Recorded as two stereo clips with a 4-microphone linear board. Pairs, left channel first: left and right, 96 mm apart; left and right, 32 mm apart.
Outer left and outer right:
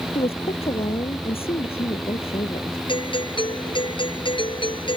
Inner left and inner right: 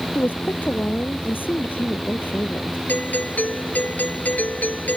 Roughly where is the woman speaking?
Left.